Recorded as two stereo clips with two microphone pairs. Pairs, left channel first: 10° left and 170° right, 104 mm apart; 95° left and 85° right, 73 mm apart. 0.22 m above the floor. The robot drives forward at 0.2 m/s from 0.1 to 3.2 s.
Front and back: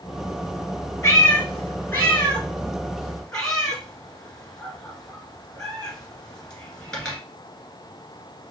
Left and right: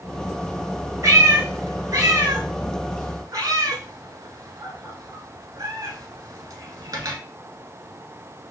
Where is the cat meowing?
50° right, 1.3 m; by 7.2 s 70° right, 1.1 m.